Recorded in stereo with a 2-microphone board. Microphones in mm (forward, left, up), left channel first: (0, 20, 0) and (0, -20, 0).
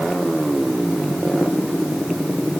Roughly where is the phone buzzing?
I don't hear a phone buzzing.